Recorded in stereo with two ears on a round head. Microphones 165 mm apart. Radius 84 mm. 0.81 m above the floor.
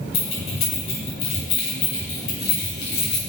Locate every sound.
0.1 s keys jangling: 75° left (ahead or behind), 3.5 m; by 3.2 s 65° left (ahead or behind), 4 m